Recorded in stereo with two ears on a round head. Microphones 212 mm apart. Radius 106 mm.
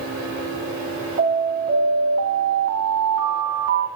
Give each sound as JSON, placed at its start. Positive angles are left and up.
{"t": 1.2, "sound": "an alarm", "side_deg": -55, "distance_m": 7.0}